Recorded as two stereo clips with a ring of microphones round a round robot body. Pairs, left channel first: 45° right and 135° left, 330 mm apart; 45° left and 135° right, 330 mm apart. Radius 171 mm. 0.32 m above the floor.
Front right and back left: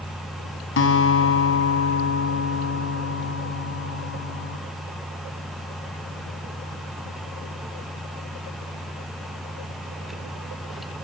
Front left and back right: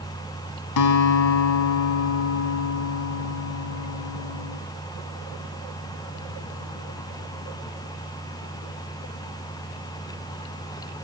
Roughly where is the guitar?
Ahead.